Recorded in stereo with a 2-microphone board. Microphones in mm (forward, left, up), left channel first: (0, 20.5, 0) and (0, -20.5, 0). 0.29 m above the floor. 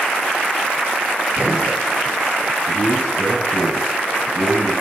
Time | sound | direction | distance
1.4 | a gunshot | 35° right (ahead or behind) | 4 m
2.7 | a man speaking | 50° right (ahead or behind) | 3 m